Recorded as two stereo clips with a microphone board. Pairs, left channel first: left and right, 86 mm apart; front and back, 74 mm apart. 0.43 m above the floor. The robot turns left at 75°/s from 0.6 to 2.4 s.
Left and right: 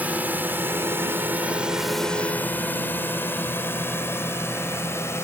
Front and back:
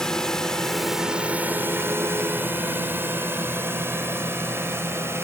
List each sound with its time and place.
0.0 s a drone: 65° right; by 5.3 s 140° left